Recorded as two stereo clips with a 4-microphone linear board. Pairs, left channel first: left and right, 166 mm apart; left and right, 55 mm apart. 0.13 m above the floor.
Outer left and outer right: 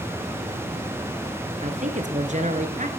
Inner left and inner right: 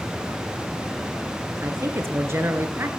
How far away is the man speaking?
About 1.8 m.